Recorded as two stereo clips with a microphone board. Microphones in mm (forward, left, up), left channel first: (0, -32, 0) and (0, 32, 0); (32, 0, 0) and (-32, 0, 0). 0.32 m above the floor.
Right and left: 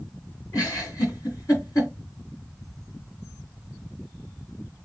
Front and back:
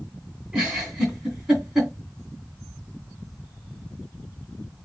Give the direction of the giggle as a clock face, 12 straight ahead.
3 o'clock.